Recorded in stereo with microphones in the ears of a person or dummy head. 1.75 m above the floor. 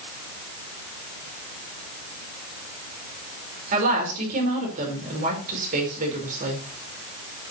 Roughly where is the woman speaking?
Right.